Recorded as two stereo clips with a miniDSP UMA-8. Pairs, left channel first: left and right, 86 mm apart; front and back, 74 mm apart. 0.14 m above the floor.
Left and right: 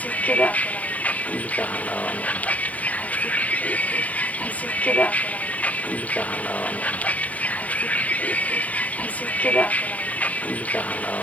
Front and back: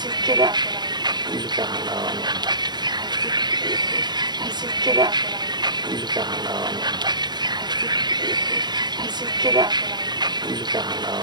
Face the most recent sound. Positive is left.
turn(degrees=165)